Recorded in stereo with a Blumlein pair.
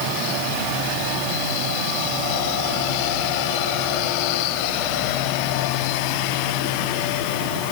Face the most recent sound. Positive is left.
No sound to turn to.